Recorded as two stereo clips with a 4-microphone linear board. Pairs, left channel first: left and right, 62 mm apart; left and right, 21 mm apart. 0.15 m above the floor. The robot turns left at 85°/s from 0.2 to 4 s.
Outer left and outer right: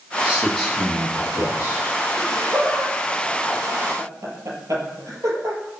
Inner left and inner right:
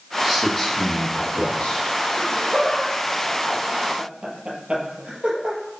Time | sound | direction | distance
0.2 | a man speaking | 155° right | 7.5 m
2.1 | laughter | 70° left (ahead or behind) | 4.5 m